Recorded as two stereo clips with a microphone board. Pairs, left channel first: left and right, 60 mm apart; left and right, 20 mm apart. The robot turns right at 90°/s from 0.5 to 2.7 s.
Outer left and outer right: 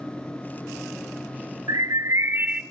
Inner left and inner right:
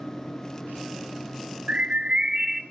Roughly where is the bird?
Right.